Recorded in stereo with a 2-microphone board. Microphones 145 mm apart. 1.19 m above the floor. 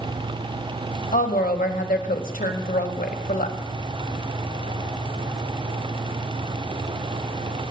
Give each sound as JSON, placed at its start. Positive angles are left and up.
{"t": 1.1, "sound": "a woman speaking", "side_deg": 70, "distance_m": 1.1}